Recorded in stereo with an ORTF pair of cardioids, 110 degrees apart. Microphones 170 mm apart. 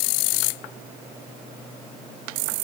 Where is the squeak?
I don't hear a squeak.